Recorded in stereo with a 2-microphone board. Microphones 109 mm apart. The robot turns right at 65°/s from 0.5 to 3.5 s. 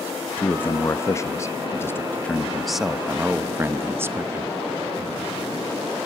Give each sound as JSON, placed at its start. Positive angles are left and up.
{"t": 0.4, "sound": "a man speaking", "side_deg": 15, "distance_m": 0.6}